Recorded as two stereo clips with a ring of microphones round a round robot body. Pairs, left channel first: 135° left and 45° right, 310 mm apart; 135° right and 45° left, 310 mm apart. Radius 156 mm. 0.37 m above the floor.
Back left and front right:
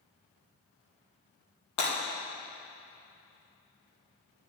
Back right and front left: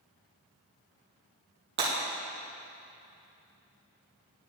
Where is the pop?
No pop in this recording.